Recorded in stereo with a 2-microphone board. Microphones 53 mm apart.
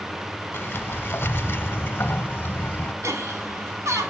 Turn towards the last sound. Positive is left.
turn(degrees=-65)  # may be behind; listen again after turning